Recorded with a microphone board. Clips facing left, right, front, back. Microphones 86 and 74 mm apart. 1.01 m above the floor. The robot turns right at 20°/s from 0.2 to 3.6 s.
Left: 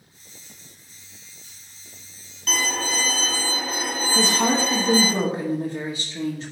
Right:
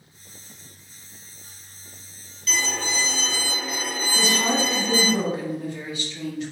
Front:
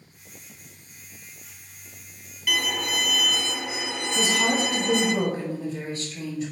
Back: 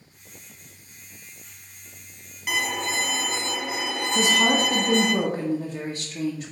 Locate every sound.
2.5 s a violin: 115° left, 1.7 m; by 5.2 s 140° left, 1.7 m
4.2 s a woman speaking: 145° left, 1.6 m